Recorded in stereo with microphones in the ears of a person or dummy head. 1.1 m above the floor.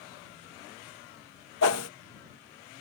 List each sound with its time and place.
1.6 s a whoosh: 60° left (ahead or behind)